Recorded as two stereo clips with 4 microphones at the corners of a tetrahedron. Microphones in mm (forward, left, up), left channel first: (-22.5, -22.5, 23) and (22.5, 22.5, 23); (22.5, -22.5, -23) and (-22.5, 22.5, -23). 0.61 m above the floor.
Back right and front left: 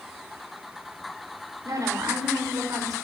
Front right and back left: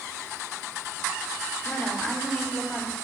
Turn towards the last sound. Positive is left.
turn(degrees=25)